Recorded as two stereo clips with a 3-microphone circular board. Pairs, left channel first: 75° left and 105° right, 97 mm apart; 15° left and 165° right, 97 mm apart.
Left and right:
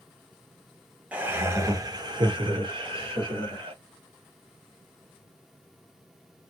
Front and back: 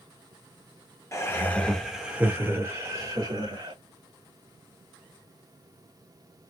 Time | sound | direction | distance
1.1 | laughter | 35° right | 1.0 m